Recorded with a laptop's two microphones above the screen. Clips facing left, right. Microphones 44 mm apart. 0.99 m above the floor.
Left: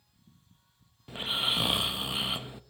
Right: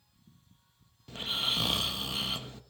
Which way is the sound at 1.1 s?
20° left (ahead or behind).